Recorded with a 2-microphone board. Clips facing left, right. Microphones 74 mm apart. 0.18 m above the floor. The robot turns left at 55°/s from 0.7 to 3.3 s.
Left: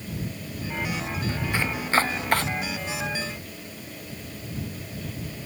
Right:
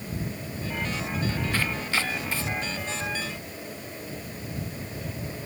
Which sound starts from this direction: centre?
Chopping, at 1.5 s.